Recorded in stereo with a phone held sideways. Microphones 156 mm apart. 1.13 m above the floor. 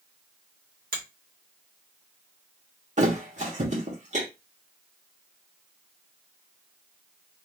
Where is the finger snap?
70° right (ahead or behind), 1.4 m.